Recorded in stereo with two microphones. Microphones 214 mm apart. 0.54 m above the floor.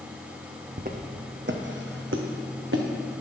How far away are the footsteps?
About 1.3 m.